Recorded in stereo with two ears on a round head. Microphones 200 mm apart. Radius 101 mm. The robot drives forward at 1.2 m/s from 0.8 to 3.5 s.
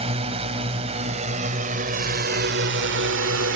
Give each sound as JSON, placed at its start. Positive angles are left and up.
{"t": 0.0, "sound": "a drone", "side_deg": -25}